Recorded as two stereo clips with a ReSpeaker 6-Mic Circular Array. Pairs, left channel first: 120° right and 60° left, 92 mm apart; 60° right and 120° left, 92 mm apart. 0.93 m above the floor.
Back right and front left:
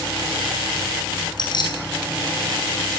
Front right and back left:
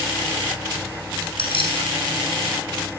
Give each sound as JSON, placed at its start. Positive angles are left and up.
{"t": 1.4, "sound": "keys jangling", "azimuth_deg": -80, "distance_m": 7.0}